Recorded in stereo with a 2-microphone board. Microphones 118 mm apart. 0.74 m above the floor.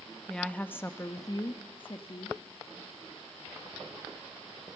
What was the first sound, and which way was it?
A woman speaking, 5° left (ahead or behind).